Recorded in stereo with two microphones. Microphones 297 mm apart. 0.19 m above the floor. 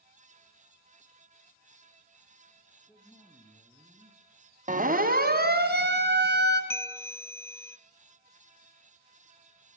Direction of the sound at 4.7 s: 25° right (ahead or behind).